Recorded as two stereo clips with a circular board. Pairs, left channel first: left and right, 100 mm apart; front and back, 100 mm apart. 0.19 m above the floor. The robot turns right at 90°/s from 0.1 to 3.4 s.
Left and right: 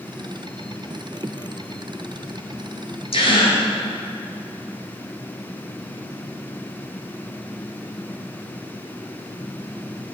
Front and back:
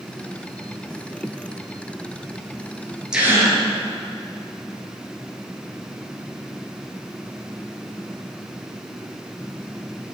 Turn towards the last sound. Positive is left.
turn(degrees=125)